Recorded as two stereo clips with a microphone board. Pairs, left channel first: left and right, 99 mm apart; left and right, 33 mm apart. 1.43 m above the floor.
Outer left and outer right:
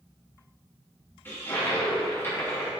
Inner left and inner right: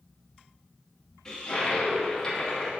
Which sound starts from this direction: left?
A toilet flushing, at 1.2 s.